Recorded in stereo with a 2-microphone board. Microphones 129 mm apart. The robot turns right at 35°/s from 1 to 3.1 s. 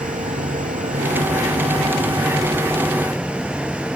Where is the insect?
80° right; by 4.0 s 5° right.